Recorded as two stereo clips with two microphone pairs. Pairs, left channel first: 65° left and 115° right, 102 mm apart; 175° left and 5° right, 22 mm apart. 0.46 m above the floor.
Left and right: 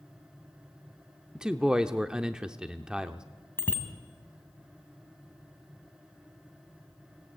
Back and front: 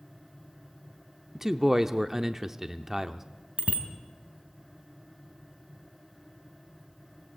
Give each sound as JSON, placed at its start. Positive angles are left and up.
{"t": 1.4, "sound": "a man speaking", "azimuth_deg": -45, "distance_m": 0.7}
{"t": 3.6, "sound": "a bicycle bell", "azimuth_deg": -5, "distance_m": 2.5}